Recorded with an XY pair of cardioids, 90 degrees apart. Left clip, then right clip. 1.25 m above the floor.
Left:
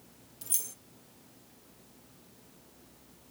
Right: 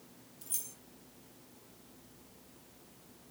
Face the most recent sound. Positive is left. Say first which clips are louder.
# left 6 dB
turn(degrees=50)